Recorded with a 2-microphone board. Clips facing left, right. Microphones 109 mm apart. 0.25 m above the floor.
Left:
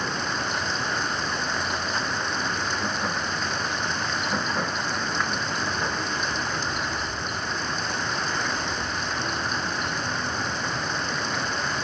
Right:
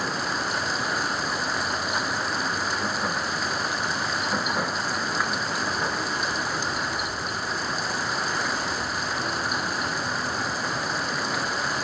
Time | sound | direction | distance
0.0 | running water | 5° right (ahead or behind) | ?